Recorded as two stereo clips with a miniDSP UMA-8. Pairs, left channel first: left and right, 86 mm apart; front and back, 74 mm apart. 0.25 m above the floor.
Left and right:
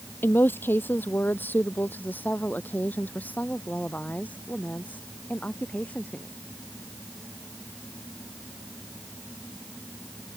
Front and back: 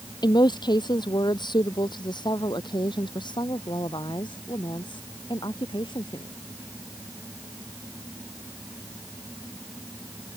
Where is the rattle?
I don't hear a rattle.